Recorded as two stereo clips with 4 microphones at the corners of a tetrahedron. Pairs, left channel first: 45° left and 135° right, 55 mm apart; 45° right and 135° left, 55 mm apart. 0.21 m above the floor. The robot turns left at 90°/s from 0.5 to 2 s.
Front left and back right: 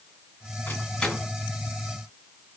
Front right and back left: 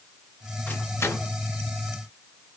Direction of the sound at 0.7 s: 5° left.